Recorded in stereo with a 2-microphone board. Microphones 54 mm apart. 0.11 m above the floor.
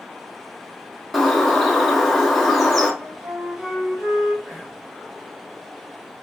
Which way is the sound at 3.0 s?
10° right (ahead or behind).